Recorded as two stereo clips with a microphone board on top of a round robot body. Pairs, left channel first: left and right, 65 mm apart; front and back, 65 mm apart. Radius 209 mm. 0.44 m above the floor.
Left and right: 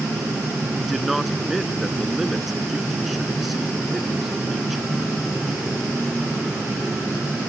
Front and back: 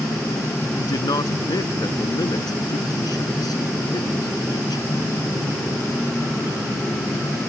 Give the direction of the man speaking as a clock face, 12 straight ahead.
12 o'clock.